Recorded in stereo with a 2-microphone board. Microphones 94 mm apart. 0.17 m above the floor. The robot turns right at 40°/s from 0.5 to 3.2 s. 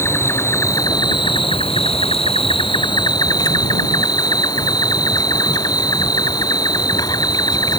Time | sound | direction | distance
0.0 | an insect | 30° left | ?